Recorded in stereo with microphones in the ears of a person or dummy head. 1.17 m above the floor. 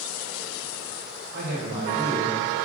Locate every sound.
1.3 s a man speaking: 55° right (ahead or behind), 0.5 m; by 2.4 s 25° right (ahead or behind), 0.9 m